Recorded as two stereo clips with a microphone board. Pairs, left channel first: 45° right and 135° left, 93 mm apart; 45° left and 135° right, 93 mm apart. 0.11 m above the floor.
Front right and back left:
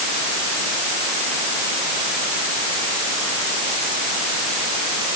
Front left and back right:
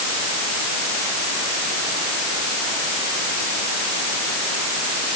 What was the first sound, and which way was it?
Only background noise.